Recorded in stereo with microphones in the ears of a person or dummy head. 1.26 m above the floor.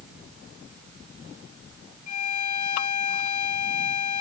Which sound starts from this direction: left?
A violin, at 2.1 s.